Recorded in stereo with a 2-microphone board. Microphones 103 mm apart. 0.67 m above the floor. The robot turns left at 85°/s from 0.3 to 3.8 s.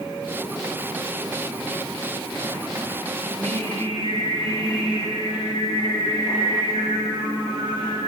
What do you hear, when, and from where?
3.2 s singing: 80° right, 7 m; by 8.0 s 125° right, 7 m